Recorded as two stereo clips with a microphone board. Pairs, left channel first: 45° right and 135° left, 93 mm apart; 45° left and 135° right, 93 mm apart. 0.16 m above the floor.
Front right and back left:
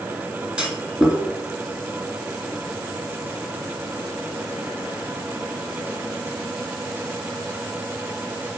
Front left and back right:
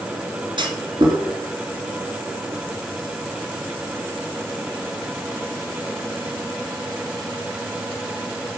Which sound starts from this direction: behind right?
A clunk, at 0.6 s.